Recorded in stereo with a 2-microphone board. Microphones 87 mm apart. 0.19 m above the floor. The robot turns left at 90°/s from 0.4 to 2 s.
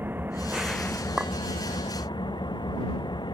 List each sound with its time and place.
0.0 s an engine running: 155° right; by 3.3 s 60° left
1.2 s a clink: 10° right (ahead or behind); by 1.3 s 5° left (ahead or behind)